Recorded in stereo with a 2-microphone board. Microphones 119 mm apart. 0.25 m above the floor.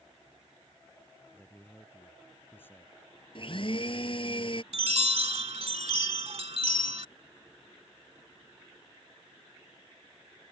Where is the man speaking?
20° left (ahead or behind).